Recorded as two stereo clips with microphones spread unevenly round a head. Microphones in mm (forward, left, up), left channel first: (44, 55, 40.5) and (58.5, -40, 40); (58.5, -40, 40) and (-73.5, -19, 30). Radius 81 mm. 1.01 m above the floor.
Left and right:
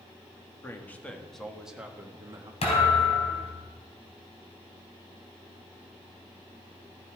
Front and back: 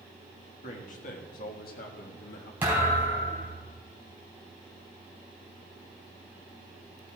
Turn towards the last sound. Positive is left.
turn(degrees=90)